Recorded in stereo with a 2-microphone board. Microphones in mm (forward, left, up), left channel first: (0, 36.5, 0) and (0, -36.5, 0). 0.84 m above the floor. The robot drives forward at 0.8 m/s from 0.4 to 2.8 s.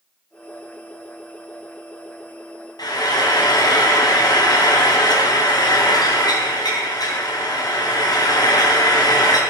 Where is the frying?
65° left (ahead or behind), 3 m.